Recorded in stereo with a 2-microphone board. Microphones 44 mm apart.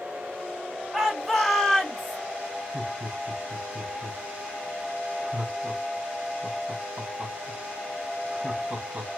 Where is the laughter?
35° right (ahead or behind), 2 m.